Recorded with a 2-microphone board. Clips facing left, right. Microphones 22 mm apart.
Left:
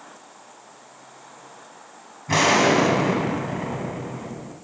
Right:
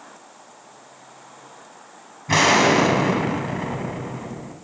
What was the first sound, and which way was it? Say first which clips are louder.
An explosion: right 2 dB; 20° right (ahead or behind).